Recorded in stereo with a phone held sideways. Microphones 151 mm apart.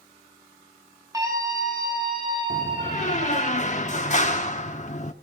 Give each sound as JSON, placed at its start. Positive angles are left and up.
{"t": 1.1, "sound": "a scream", "side_deg": -20, "distance_m": 7.0}
{"t": 2.5, "sound": "a door slam", "side_deg": 50, "distance_m": 1.3}